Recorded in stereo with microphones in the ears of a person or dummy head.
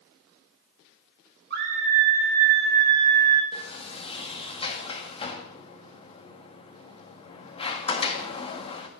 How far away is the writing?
No writing in this recording.